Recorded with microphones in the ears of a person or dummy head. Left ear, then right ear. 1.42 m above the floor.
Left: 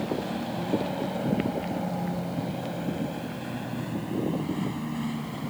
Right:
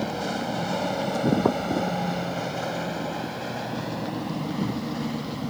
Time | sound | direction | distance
0.0 | a vehicle | 75° right (ahead or behind) | ?